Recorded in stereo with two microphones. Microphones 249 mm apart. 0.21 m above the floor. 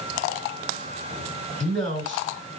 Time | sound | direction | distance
1.6 | a man speaking | 50° right (ahead or behind) | 2.5 m